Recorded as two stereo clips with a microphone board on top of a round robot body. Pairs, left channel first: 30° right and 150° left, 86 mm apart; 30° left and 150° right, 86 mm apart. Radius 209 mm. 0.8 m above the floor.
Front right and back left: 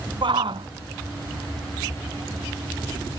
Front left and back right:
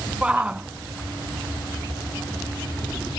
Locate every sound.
0.2 s a shout: 135° left